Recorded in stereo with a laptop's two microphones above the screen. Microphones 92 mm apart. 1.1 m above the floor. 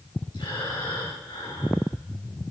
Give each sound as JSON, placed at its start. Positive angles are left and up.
{"t": 0.3, "sound": "breathing", "side_deg": 60, "distance_m": 5.0}